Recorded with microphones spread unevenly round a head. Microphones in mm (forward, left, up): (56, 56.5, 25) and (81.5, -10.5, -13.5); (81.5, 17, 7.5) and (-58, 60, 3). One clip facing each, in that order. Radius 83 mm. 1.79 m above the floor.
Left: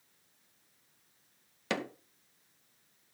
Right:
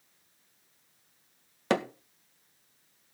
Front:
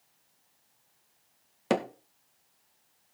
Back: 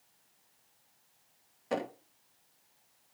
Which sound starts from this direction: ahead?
Hammering, at 1.7 s.